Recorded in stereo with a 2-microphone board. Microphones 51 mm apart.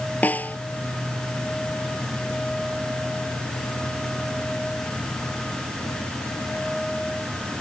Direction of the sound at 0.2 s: 35° left (ahead or behind).